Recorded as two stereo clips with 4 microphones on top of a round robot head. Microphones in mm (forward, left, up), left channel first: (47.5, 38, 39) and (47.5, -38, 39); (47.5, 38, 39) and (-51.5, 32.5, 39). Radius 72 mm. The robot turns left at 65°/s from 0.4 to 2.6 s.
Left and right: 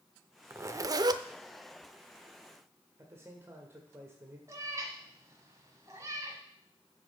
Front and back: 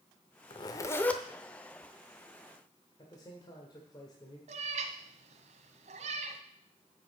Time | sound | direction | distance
0.5 | a zipper | 35° right | 0.6 m
3.0 | a man speaking | 40° right | 1.6 m
4.5 | a cat meowing | 155° right | 1.1 m